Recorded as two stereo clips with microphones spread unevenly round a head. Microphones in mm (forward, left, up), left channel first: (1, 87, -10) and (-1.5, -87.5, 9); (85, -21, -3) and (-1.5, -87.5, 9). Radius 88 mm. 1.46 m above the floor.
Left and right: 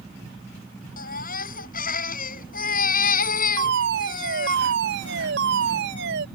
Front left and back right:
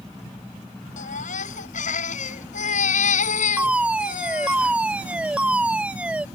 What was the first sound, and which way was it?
A baby crying, 45° left.